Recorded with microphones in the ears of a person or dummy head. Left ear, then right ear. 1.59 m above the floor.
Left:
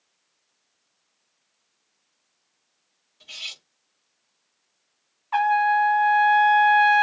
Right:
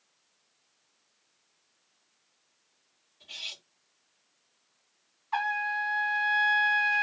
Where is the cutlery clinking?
45° left (ahead or behind), 1.3 m.